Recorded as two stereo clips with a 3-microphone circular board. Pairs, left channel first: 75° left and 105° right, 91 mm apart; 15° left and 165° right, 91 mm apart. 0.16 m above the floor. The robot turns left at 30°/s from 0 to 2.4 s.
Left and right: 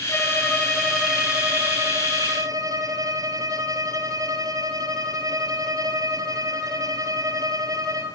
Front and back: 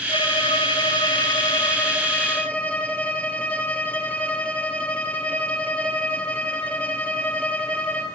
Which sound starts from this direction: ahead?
A violin, at 0.1 s.